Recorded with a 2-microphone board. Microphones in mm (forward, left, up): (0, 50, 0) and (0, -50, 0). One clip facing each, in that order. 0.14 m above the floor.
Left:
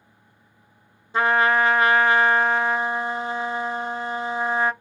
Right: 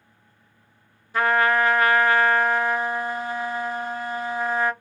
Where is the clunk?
No clunk in this recording.